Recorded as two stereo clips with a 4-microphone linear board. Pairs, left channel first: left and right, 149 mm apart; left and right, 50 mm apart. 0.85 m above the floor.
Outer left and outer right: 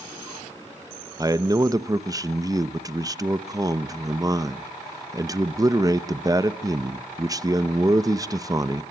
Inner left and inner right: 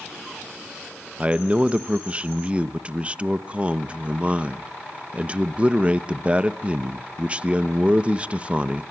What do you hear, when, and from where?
1.2 s a man speaking: 25° right (ahead or behind), 0.9 m